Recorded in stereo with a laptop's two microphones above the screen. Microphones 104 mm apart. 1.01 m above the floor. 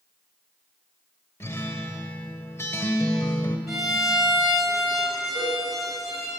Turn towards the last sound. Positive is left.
turn(degrees=50)  # may be behind; listen again after turning